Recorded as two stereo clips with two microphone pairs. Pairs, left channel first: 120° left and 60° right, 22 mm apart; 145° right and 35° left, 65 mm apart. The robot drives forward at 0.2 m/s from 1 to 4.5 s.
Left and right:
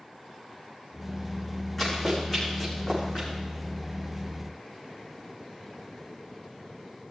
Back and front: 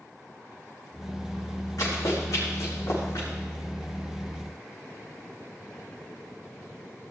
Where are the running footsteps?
165° right, 6 m; by 3.3 s 175° right, 6 m.